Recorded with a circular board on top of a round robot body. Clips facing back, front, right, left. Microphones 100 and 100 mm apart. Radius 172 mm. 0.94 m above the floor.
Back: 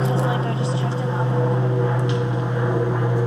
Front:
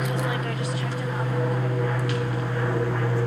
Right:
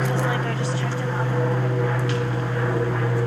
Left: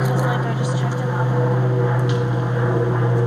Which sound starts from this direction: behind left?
An aircraft, at 0.0 s.